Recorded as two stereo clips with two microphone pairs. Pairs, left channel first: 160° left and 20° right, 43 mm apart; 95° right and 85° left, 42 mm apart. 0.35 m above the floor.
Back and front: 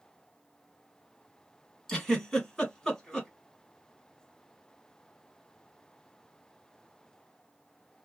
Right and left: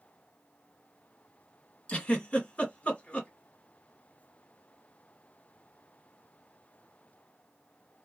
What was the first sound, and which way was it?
A giggle, 130° right.